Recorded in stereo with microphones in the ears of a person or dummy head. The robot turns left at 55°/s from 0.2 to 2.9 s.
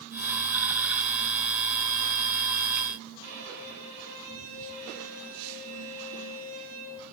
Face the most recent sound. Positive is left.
turn(degrees=-80)